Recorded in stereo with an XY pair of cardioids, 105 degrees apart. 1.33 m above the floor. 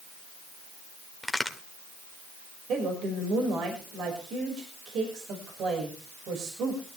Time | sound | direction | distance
1.2 | a crack | straight ahead | 2 m
2.7 | a woman speaking | 70° right | 5.5 m